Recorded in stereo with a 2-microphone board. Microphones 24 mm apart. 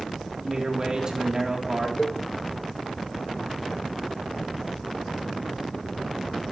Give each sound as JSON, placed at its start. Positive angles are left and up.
{"t": 0.4, "sound": "a man speaking", "side_deg": -35, "distance_m": 2.5}
{"t": 2.0, "sound": "a cowbell", "side_deg": 45, "distance_m": 1.0}